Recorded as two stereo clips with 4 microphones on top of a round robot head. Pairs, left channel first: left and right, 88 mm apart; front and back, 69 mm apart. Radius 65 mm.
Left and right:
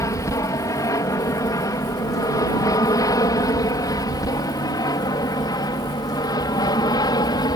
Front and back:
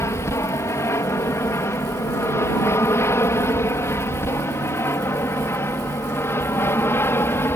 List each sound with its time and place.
0.0 s an aircraft: 40° left; by 7.6 s 50° left